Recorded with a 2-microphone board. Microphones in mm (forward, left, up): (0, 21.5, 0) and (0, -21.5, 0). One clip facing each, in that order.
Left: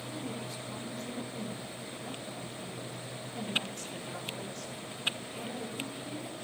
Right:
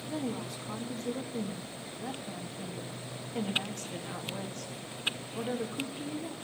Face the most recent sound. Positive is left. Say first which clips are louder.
# right 5 dB
turn(degrees=-65)  # may be behind; listen again after turning